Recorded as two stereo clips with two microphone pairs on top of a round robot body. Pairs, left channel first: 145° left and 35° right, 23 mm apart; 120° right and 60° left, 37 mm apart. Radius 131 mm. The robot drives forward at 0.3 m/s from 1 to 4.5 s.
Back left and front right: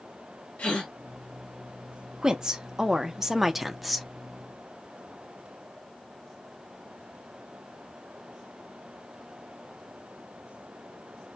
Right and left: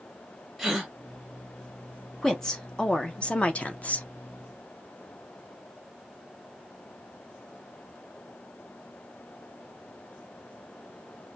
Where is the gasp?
145° left, 1.1 m.